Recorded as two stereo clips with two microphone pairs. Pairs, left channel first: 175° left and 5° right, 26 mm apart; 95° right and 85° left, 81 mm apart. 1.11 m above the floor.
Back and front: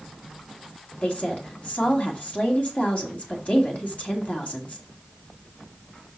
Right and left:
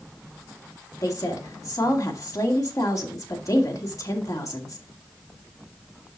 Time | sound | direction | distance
1.0 | a woman speaking | 145° right | 1.6 m